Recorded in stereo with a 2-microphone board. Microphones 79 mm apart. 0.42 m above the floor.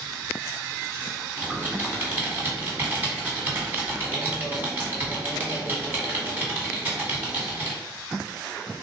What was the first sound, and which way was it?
Typing on a keyboard, 25° right (ahead or behind).